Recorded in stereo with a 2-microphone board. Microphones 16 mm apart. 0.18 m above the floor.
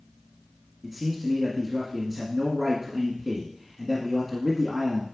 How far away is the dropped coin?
No dropped coin in this recording.